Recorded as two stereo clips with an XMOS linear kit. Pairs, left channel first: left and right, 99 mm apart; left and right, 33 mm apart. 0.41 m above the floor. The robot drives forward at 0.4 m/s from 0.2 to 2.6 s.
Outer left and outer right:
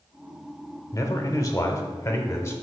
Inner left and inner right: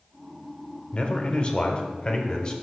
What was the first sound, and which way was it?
A man speaking, 35° left (ahead or behind).